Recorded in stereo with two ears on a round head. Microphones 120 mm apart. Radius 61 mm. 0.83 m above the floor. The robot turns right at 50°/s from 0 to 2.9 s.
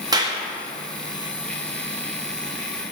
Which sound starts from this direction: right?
A clap, at 0.1 s.